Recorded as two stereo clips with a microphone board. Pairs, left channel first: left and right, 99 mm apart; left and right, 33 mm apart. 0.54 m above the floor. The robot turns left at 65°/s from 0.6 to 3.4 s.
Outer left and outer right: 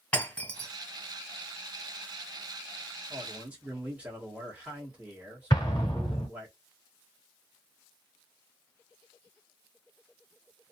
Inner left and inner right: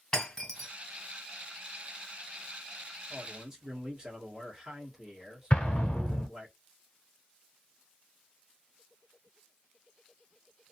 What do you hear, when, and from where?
0.1 s breaking glass: 10° left (ahead or behind), 1.9 m; by 0.7 s 5° left (ahead or behind), 1.9 m
3.1 s a man speaking: 20° right (ahead or behind), 1.1 m; by 6.5 s 15° right (ahead or behind), 1.1 m
5.5 s an explosion: 45° left (ahead or behind), 0.9 m